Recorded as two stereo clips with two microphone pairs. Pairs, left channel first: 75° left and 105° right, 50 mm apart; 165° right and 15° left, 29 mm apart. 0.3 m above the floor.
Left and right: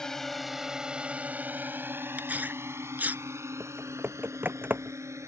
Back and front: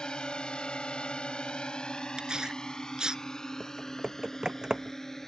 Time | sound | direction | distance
0.0 | a drone | 150° left | ?
2.2 | tearing paper | 50° right | ?
3.6 | typing on a keyboard | 50° right | ?